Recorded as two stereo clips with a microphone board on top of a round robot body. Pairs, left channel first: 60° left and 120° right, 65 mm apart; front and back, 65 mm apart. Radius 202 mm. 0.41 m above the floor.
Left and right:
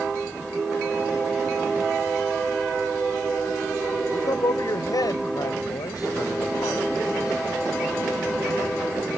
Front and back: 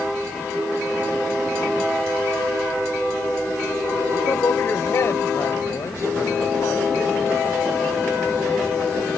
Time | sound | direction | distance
4.1 | a man speaking | 50° left | ?